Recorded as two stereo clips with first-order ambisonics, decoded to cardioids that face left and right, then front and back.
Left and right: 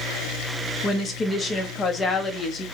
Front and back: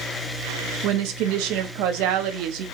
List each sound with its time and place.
0.8 s a woman speaking: 155° left, 0.6 m